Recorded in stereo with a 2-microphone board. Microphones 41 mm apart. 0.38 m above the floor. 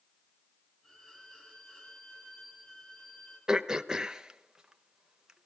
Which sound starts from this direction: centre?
Throat clearing, at 3.5 s.